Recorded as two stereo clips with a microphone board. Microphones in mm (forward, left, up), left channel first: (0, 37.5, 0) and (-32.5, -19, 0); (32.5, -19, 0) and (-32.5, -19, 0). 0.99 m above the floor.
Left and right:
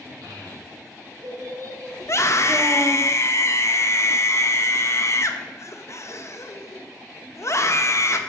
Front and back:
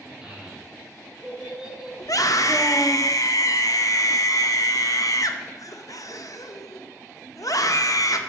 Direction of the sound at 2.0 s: 20° left.